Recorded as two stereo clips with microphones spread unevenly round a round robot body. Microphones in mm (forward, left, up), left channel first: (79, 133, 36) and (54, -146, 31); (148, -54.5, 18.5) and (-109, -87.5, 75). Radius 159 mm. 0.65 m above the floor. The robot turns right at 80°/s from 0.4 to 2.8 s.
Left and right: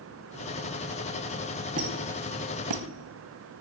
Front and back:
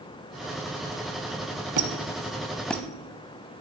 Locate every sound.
1.8 s a squeak: 160° right, 0.9 m; by 2.9 s 80° right, 0.9 m